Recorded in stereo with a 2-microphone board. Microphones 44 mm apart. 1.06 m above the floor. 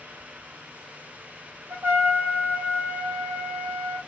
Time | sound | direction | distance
1.7 | a trumpet | 70° right (ahead or behind) | 1.9 m